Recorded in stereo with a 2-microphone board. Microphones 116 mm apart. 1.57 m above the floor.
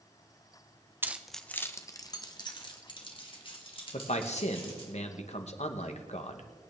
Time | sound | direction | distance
1.0 | keys jangling | 20° right (ahead or behind) | 0.7 m
3.9 | a man speaking | 75° left (ahead or behind) | 1.4 m